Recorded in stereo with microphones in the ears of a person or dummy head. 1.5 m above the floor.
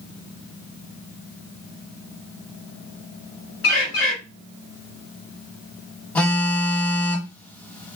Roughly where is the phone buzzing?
Centre.